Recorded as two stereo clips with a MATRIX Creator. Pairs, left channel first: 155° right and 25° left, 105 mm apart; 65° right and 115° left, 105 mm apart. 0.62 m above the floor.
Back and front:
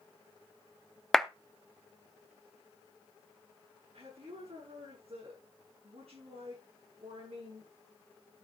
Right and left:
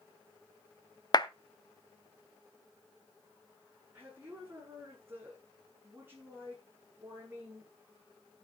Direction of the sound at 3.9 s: 40° left.